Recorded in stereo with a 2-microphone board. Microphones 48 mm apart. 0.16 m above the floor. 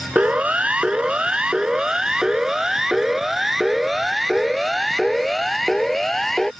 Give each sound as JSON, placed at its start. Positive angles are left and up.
{"t": 0.1, "sound": "a siren", "side_deg": -30}